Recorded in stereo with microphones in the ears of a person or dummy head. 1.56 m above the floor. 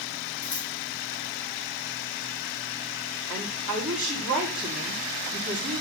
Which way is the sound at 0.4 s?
15° left (ahead or behind).